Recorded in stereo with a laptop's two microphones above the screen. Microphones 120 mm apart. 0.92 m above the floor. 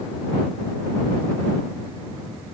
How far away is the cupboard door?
I don't hear a cupboard door.